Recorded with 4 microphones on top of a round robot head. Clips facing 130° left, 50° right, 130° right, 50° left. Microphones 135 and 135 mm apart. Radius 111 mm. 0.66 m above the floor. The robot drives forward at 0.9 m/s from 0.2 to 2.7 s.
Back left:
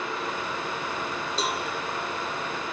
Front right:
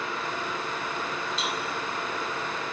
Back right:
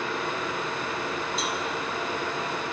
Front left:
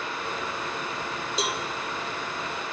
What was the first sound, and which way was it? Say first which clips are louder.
A cowbell: back left 6 dB, front left 1 dB; 70° left.